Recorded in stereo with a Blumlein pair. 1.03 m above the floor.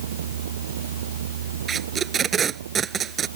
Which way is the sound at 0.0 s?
60° right.